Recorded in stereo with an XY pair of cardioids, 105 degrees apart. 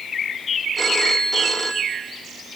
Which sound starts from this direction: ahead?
A phone ringing, at 0.8 s.